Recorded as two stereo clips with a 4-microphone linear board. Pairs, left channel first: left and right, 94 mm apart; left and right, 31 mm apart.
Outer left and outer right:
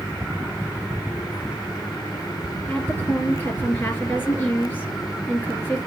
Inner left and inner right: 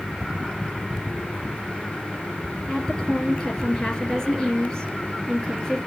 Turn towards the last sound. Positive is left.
turn(degrees=20)  # may be behind; listen again after turning